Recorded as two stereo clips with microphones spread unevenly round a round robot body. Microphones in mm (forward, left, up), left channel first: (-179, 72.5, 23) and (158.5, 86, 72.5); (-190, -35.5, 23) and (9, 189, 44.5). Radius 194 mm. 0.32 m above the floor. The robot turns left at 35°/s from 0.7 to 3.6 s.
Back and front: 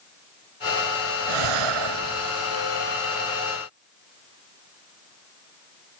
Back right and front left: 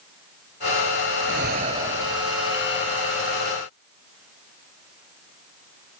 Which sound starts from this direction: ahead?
Breathing, at 1.2 s.